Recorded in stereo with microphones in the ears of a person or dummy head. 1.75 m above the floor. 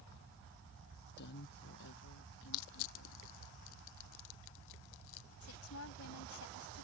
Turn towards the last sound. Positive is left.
turn(degrees=80)